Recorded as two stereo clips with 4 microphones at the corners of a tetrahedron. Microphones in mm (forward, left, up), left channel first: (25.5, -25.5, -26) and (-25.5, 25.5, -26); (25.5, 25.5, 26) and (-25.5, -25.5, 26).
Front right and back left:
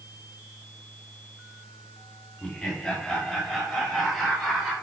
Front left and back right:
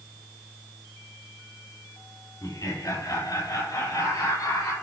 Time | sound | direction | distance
2.4 | laughter | 30° left | 4 m